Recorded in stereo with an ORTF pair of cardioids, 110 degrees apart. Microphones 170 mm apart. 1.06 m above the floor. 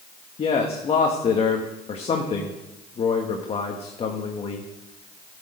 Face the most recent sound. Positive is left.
turn(degrees=35)